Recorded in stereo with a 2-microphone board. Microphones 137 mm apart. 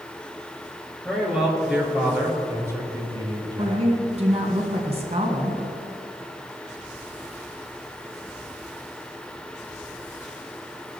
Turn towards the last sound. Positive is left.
turn(degrees=-50)  # may be behind; listen again after turning